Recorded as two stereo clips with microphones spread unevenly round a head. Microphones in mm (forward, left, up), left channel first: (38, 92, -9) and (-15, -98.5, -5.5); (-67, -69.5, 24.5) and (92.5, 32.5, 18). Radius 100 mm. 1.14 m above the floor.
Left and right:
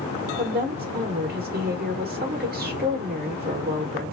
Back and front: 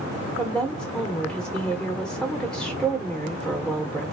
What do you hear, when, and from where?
0.4 s a woman speaking: 55° right, 1.1 m